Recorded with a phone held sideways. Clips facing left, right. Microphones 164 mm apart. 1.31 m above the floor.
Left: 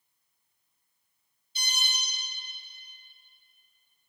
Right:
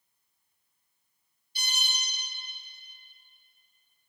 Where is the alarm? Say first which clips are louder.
Left 1 dB; 20° left (ahead or behind), 1.4 m.